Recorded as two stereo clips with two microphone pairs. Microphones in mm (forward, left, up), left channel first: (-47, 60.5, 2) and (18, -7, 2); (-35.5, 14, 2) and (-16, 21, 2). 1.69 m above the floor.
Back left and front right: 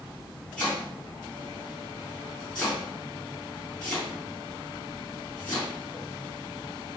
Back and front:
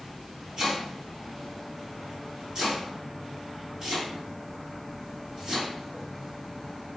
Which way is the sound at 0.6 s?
60° left.